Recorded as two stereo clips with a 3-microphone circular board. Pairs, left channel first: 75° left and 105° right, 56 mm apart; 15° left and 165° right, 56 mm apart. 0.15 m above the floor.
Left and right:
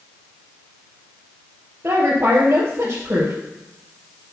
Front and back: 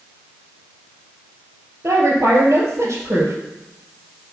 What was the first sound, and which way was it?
A woman speaking, 135° right.